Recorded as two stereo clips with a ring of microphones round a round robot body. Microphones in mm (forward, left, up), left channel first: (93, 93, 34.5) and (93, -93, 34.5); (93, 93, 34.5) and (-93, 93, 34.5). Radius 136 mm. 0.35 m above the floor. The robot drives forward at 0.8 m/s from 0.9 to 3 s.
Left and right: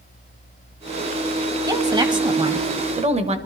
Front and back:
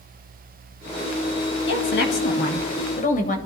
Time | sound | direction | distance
1.7 | a woman speaking | 20° right | 2 m